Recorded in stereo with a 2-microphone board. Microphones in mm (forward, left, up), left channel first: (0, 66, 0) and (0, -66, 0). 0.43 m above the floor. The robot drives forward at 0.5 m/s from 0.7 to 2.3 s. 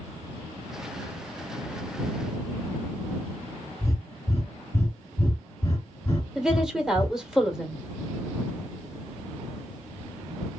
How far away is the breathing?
About 1.1 m.